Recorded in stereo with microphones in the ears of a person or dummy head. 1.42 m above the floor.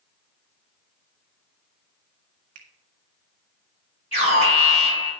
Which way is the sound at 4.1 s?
30° left (ahead or behind).